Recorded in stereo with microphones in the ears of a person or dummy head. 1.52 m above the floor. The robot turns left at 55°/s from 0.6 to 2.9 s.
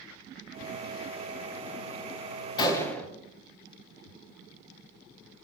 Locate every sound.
2.6 s a gunshot: 30° left (ahead or behind), 1.4 m; by 3.1 s 10° left (ahead or behind), 1.4 m